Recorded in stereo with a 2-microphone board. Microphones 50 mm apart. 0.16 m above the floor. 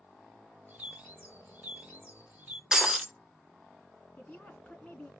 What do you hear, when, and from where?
0.7 s a bird: 35° right (ahead or behind), 1.9 m
2.7 s breaking glass: 15° right (ahead or behind), 0.8 m
4.2 s a woman speaking: 30° left (ahead or behind), 1.6 m